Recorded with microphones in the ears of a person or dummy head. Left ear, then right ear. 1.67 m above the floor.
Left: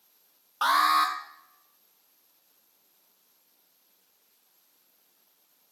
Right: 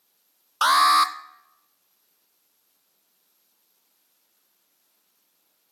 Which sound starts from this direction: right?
An alarm, at 0.6 s.